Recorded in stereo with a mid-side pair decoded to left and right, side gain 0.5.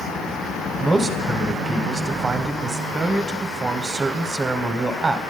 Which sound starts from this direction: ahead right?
A man speaking, at 0.8 s.